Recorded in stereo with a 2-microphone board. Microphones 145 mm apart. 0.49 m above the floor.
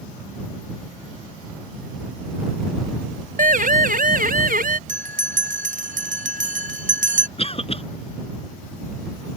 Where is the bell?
60° right (ahead or behind).